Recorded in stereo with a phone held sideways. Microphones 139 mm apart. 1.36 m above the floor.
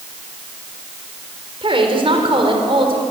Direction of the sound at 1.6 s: 40° right (ahead or behind).